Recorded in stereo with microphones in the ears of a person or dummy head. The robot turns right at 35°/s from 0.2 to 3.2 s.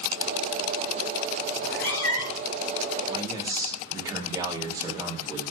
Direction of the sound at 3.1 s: 20° right (ahead or behind).